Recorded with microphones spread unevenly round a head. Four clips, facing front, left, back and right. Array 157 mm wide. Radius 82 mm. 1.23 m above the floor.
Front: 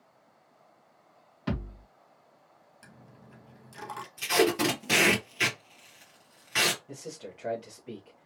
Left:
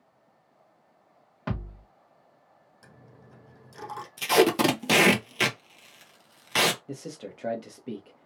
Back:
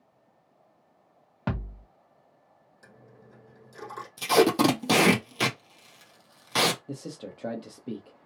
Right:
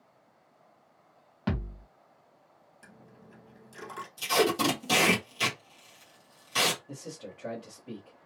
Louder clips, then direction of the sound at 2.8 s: Even, back 1 dB; 35° left.